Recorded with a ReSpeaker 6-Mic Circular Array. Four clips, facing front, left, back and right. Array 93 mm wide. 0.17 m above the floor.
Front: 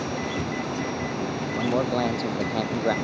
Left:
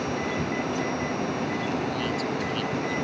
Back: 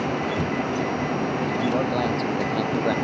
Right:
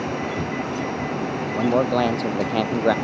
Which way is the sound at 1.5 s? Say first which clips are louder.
Right 9 dB, front 1 dB; 85° right.